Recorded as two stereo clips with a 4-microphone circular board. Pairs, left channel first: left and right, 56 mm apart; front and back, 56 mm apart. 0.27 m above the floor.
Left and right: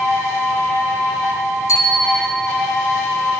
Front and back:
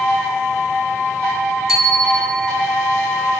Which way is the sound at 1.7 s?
95° left.